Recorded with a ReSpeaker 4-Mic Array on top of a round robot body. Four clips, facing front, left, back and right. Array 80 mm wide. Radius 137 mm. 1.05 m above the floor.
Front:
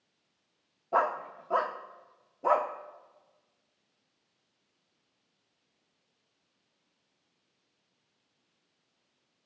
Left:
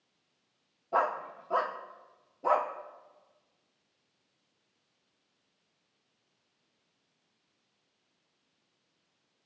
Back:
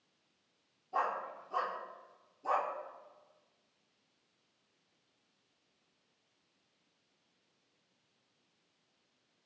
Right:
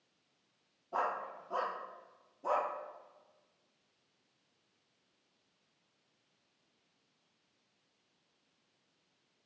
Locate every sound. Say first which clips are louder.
0.9 s a dog barking: left 6 dB, front 7 dB; 25° left, 1.0 m